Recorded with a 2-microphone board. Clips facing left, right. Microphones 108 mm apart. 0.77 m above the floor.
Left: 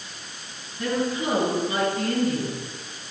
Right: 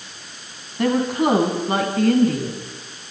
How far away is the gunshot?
No gunshot in this recording.